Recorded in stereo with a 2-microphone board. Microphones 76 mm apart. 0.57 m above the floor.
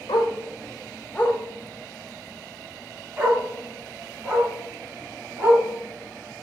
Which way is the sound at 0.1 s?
70° left (ahead or behind).